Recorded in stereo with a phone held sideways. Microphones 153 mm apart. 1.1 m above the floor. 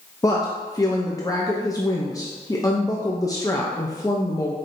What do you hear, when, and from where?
0.2 s a woman speaking: 25° left (ahead or behind), 0.6 m